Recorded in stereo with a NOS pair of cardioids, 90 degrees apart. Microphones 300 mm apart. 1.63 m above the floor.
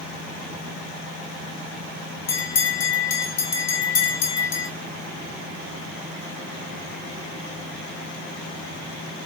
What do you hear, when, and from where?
2.3 s a bell: 55° left, 1.4 m